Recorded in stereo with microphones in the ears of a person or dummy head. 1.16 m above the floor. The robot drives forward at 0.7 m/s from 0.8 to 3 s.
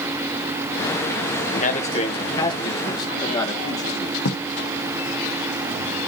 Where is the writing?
65° left (ahead or behind), 1.2 m.